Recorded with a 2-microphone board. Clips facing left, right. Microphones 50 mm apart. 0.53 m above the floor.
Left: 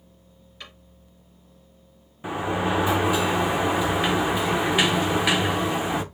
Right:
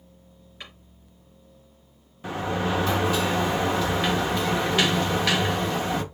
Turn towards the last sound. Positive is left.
turn(degrees=15)  # may be behind; listen again after turning